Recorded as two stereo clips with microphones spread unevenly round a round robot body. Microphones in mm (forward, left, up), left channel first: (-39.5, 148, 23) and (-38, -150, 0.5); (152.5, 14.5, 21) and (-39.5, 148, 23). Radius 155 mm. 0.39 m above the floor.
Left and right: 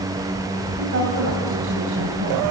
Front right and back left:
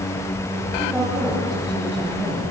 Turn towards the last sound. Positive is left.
turn(degrees=-130)